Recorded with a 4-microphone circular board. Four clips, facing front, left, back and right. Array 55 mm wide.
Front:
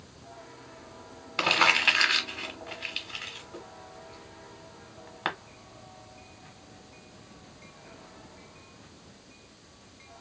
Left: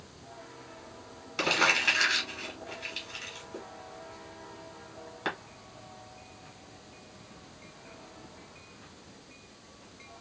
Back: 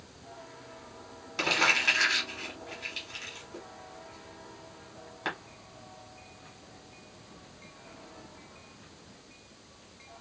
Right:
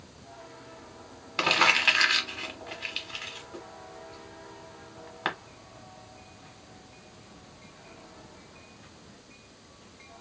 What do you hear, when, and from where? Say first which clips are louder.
1.4 s crumpling: right 3 dB, front 3 dB; 40° right, 1.1 m